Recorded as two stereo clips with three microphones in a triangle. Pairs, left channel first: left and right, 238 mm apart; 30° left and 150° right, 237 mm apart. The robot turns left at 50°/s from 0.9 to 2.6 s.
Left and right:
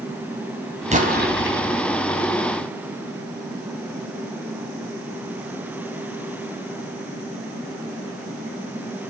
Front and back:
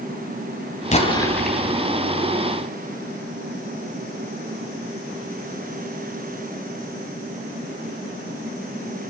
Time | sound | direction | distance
0.9 | an explosion | 30° right | 3.5 m